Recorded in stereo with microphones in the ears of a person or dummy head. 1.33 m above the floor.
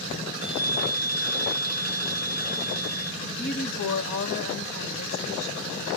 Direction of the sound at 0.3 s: 75° left (ahead or behind).